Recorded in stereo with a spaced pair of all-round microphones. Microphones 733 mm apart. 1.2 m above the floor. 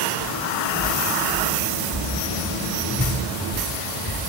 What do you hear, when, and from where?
0.2 s footsteps: 35° right (ahead or behind), 3 m; by 4.3 s 45° left (ahead or behind), 1.7 m